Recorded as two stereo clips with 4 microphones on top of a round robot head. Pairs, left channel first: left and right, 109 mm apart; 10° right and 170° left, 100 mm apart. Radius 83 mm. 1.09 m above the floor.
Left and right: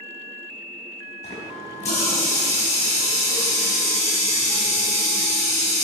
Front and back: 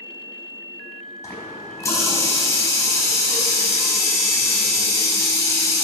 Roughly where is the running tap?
Ahead left.